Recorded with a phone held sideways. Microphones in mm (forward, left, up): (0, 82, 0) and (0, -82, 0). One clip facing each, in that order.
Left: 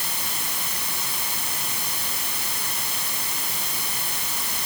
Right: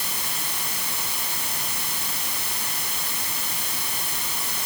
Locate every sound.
Only background noise.